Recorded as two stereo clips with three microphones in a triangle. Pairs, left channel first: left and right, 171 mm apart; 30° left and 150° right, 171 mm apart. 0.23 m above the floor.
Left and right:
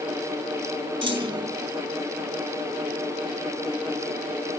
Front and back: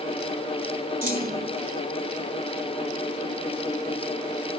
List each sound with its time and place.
1.0 s a clunk: 145° right